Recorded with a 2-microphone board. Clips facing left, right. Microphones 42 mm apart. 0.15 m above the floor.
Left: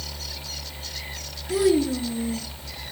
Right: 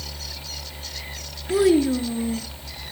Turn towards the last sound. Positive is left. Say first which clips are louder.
# right 3 dB
turn(degrees=-30)  # may be behind; listen again after turning